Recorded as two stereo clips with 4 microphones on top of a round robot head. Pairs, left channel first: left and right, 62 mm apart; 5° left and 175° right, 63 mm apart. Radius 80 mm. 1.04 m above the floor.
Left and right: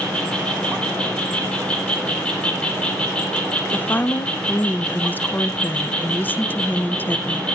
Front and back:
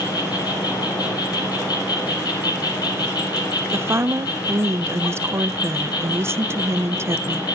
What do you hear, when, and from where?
0.0 s an insect: 15° left, 4 m
3.7 s a woman speaking: 145° left, 0.6 m